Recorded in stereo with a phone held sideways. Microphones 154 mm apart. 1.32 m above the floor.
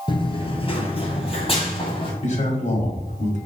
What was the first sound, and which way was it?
Running footsteps, 30° left (ahead or behind).